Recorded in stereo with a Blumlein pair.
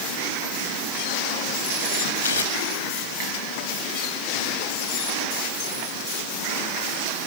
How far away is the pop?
No pop in this recording.